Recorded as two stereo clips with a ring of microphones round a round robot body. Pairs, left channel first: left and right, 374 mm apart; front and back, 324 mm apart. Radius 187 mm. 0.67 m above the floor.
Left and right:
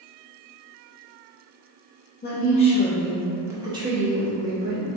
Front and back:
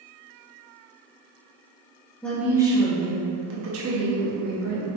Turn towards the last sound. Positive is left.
turn(degrees=-155)